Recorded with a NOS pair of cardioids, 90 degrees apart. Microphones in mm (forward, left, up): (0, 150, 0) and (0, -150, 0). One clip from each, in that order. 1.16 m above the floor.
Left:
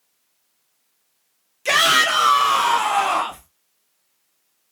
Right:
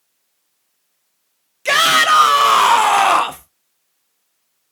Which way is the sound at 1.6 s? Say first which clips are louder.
Right 3 dB; 10° right.